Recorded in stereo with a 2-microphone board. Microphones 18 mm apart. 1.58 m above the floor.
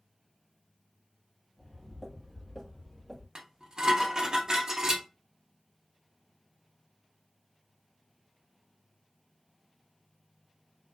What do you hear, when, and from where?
1.6 s footsteps: 10° left (ahead or behind), 1.6 m; by 3.2 s 35° left (ahead or behind), 1.8 m
3.4 s dishes clattering: 35° right (ahead or behind), 0.7 m